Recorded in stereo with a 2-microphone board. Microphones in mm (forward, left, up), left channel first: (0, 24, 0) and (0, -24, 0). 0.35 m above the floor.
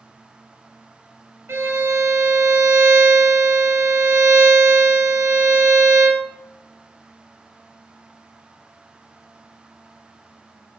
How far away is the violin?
About 0.8 m.